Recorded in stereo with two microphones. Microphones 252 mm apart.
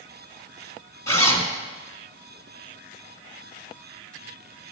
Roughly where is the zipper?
Centre.